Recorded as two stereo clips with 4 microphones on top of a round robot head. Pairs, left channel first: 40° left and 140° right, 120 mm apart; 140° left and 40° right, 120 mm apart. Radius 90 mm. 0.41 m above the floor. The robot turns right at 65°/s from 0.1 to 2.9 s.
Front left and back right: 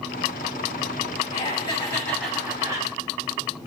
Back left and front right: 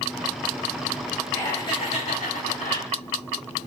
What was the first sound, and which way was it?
Laughter, 65° left.